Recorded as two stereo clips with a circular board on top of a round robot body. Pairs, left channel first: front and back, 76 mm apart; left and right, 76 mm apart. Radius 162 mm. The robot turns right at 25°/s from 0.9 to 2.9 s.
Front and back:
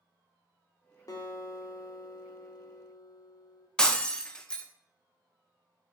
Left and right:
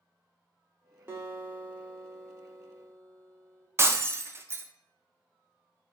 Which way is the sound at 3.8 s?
75° right.